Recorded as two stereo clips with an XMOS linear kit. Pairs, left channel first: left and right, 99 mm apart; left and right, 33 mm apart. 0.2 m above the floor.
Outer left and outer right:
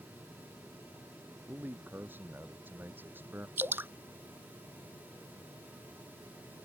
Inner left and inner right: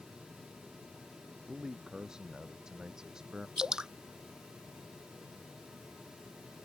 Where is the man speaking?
20° right (ahead or behind).